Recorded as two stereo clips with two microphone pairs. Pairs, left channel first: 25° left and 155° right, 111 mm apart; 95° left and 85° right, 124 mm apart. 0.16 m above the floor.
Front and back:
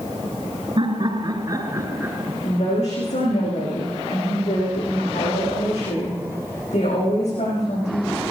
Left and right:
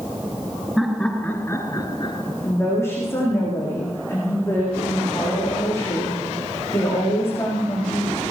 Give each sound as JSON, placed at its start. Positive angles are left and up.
{"t": 0.8, "sound": "laughter", "azimuth_deg": -175, "distance_m": 1.9}
{"t": 2.4, "sound": "a woman speaking", "azimuth_deg": 25, "distance_m": 8.5}